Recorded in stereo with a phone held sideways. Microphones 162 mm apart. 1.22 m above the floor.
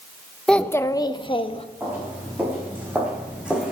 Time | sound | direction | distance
0.5 | a child speaking | 5° left (ahead or behind) | 0.7 m
1.8 | footsteps | 15° right (ahead or behind) | 6 m